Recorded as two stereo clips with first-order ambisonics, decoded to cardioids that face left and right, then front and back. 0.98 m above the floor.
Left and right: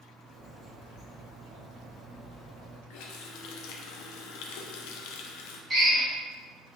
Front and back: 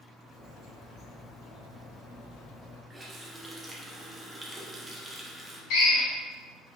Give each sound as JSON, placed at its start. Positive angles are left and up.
{"t": 0.2, "sound": "a bird", "azimuth_deg": -40, "distance_m": 1.7}
{"t": 2.9, "sound": "a running tap", "azimuth_deg": 100, "distance_m": 0.5}
{"t": 5.7, "sound": "a drill", "azimuth_deg": -15, "distance_m": 1.7}